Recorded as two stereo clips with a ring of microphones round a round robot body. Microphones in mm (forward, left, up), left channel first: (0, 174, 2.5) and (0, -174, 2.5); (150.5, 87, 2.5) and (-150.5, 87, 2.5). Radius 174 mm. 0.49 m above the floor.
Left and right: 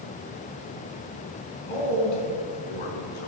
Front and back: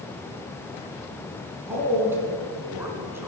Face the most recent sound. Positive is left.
turn(degrees=100)